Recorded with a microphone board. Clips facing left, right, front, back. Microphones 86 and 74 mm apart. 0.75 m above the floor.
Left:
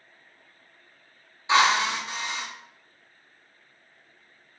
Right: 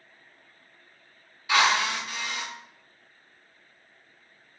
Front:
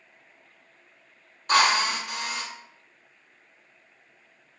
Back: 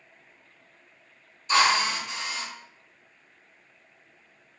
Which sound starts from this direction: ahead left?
A drill, at 1.5 s.